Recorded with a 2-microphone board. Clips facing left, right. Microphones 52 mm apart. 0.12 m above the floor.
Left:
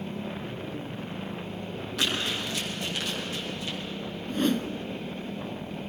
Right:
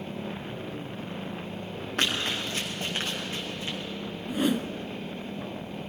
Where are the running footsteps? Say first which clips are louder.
Right 1 dB; 40° right (ahead or behind), 6.5 m; by 3.8 s 30° right (ahead or behind), 6.5 m.